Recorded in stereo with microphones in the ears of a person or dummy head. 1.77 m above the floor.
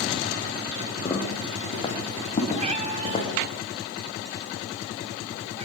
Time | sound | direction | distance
1.1 | footsteps | 15° left (ahead or behind) | 6 m
2.6 | a cat meowing | 30° right (ahead or behind) | 2.5 m